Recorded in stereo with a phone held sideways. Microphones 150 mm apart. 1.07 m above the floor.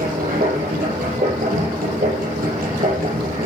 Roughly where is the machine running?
Right.